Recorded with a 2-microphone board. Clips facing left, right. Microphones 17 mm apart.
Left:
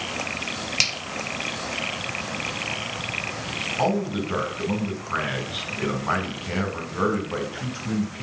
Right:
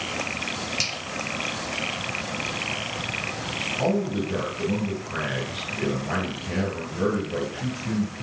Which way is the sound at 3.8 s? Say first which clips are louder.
Left 1 dB; 65° left (ahead or behind).